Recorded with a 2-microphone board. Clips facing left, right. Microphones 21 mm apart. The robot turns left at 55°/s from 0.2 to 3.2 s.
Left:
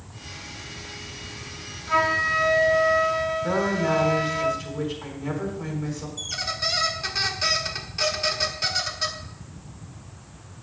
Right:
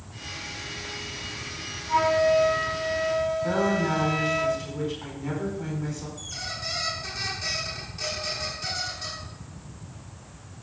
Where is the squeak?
35° left (ahead or behind), 1.4 m.